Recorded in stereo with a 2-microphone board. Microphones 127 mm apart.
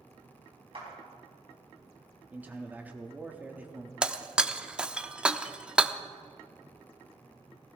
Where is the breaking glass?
10° right (ahead or behind), 0.5 m.